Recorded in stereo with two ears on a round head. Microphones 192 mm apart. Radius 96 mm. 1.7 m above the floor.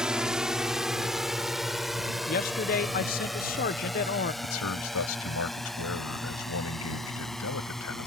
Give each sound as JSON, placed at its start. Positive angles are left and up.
{"t": 0.0, "sound": "a drone", "side_deg": -5}
{"t": 2.3, "sound": "a man speaking", "side_deg": 45}
{"t": 4.4, "sound": "a man speaking", "side_deg": 80}